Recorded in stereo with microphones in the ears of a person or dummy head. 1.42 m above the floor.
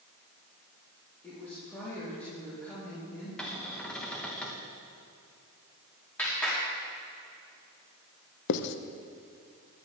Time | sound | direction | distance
1.2 | a woman speaking | 15° left (ahead or behind) | 3.5 m
3.4 | a cupboard door | centre (ahead or behind) | 1.4 m
6.2 | a clap | 5° left (ahead or behind) | 3 m
8.5 | writing | 65° left (ahead or behind) | 0.7 m